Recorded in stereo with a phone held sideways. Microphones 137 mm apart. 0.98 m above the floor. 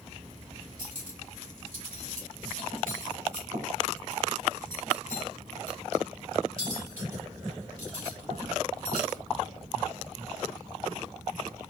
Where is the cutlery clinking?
75° right (ahead or behind), 2.5 m.